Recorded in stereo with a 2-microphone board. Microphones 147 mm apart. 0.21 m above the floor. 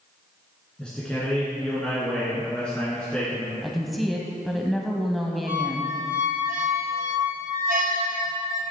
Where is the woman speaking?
Centre (ahead or behind), 1.2 m.